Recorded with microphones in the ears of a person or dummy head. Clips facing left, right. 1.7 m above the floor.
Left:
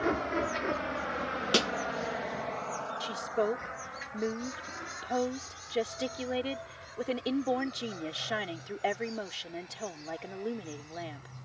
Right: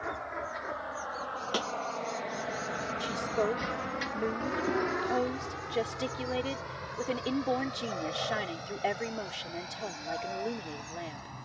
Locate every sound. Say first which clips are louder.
0.0 s a vehicle: left 8 dB; 50° left (ahead or behind); by 11.4 s 80° right
1.5 s a snare drum: left 5 dB; 30° left (ahead or behind)
3.0 s a woman speaking: even; centre (ahead or behind)